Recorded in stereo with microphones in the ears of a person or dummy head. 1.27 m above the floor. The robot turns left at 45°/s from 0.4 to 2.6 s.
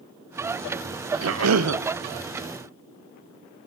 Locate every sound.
1.2 s a cough: 75° right (ahead or behind), 0.7 m